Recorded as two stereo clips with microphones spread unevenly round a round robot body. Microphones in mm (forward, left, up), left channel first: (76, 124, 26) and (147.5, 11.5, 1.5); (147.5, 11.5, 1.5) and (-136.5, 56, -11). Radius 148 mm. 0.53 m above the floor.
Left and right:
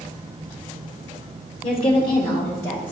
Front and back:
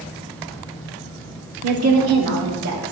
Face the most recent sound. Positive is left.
turn(degrees=-155)